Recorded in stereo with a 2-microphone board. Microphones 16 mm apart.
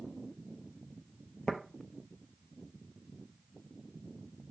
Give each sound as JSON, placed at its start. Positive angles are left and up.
{"t": 1.5, "sound": "tapping", "side_deg": 45, "distance_m": 0.8}